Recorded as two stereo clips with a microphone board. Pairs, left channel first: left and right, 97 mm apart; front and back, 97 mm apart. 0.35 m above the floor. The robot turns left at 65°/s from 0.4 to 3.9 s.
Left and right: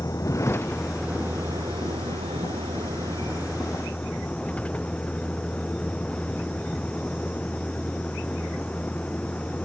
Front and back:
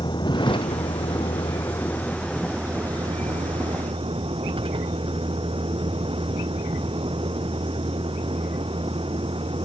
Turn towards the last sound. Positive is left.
turn(degrees=165)